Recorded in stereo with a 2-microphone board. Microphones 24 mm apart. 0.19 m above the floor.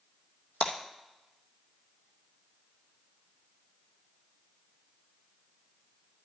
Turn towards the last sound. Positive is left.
turn(degrees=90)